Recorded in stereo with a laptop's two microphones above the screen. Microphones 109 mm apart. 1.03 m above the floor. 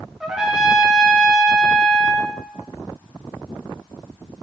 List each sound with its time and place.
0.2 s a trumpet: 5° right (ahead or behind), 0.6 m